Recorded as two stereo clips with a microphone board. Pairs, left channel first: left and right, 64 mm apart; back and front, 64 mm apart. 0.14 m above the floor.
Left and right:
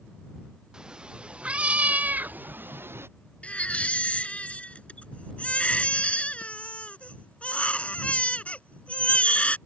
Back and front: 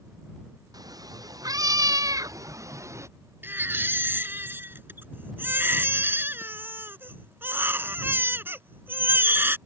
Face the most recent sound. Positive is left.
turn(degrees=30)